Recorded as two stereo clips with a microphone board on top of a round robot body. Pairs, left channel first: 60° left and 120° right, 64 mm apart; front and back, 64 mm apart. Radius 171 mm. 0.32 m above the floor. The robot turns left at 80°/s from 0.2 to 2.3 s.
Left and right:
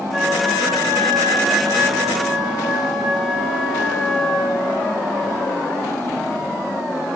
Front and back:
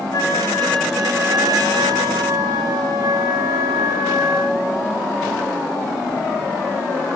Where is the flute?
35° right, 3 m; by 4.8 s 155° left, 3 m.